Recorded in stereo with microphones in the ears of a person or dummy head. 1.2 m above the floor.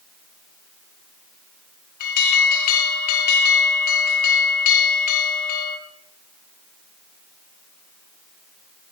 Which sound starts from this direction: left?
An alarm, at 2.0 s.